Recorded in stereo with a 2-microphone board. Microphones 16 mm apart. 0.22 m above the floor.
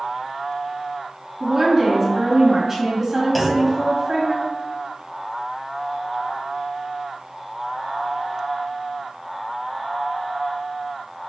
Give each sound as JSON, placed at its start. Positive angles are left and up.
{"t": 1.4, "sound": "a woman speaking", "side_deg": -15, "distance_m": 1.4}
{"t": 3.4, "sound": "a clunk", "side_deg": -5, "distance_m": 0.5}